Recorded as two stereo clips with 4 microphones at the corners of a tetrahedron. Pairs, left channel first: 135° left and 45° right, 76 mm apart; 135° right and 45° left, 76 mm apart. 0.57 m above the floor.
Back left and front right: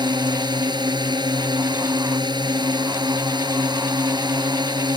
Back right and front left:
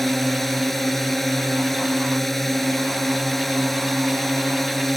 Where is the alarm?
I don't hear an alarm.